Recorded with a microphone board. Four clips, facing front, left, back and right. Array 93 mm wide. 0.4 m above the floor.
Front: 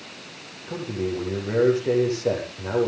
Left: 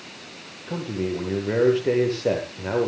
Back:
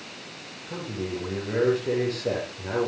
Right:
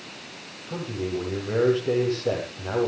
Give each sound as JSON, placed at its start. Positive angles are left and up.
{"t": 0.7, "sound": "a man speaking", "azimuth_deg": 75, "distance_m": 8.5}